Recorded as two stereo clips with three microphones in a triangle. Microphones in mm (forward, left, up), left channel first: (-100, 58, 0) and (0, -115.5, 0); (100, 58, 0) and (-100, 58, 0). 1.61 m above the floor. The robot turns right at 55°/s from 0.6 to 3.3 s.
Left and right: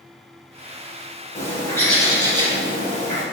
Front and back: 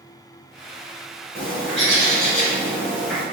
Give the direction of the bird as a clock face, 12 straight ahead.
6 o'clock.